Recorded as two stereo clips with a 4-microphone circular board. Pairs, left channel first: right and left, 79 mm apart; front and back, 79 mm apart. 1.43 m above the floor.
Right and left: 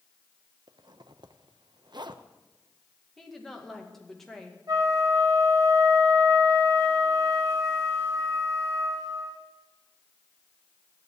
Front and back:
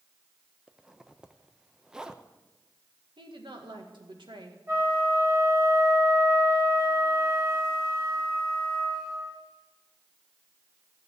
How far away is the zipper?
About 0.7 m.